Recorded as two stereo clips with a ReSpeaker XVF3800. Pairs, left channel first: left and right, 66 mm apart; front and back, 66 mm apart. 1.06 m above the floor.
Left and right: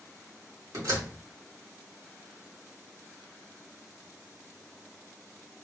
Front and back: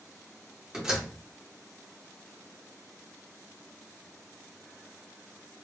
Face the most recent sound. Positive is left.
turn(degrees=-105)